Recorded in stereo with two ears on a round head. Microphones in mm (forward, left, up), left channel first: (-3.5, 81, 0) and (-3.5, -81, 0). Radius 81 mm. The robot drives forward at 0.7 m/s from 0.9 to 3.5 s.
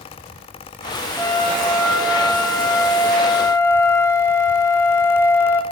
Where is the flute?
5° left (ahead or behind), 3 m; by 5.6 s 15° left (ahead or behind), 1.6 m.